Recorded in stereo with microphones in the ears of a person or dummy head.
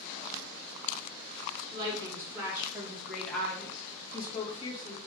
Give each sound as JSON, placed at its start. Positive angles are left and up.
{"t": 1.7, "sound": "a woman speaking", "side_deg": -20, "distance_m": 2.0}